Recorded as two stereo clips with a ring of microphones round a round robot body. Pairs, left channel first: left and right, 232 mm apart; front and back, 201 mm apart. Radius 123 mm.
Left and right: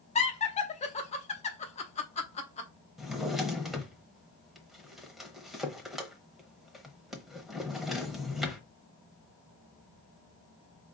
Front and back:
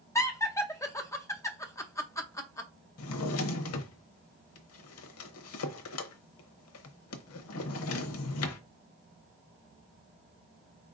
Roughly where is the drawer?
Ahead.